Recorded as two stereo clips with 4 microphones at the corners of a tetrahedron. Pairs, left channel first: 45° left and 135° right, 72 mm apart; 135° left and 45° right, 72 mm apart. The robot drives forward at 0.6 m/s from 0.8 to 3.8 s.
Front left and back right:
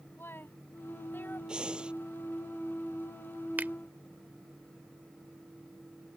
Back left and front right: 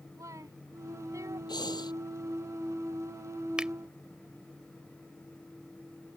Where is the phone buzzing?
I don't hear a phone buzzing.